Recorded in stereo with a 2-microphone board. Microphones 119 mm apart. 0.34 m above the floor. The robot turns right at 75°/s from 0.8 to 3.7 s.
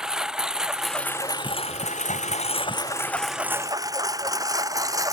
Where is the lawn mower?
5° right (ahead or behind); by 5.1 s 30° right (ahead or behind).